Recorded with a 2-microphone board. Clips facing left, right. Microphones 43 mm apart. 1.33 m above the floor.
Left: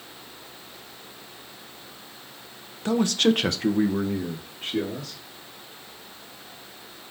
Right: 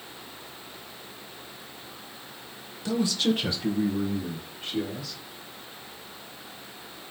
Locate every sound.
2.9 s a man speaking: 40° left (ahead or behind), 1.2 m; by 5.2 s 55° left (ahead or behind), 2.5 m